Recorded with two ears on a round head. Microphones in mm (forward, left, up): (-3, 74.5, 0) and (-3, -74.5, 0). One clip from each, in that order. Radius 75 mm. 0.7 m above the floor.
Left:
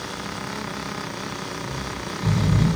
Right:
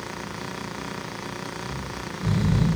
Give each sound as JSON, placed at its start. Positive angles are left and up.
{"t": 1.6, "sound": "snoring", "side_deg": 35, "distance_m": 5.0}